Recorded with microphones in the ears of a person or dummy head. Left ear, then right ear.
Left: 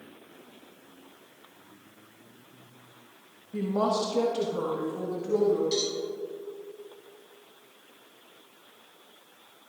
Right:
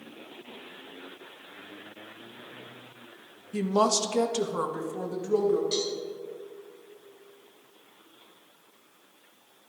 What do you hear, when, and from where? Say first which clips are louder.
3.5 s a woman speaking: right 3 dB; 90° right, 1.2 m; by 5.6 s 25° right (ahead or behind), 1.8 m
5.7 s a cowbell: left 1 dB; 10° right (ahead or behind), 4 m